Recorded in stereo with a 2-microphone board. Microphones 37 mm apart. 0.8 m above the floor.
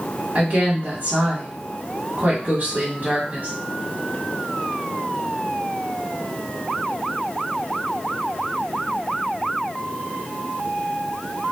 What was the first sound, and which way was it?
A woman speaking, 50° right (ahead or behind).